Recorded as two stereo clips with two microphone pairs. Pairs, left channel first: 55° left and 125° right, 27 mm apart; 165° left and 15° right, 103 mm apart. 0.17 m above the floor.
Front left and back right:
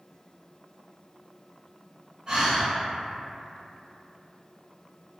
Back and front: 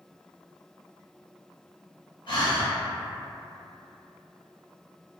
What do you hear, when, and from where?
2.3 s breathing: 175° left, 1.2 m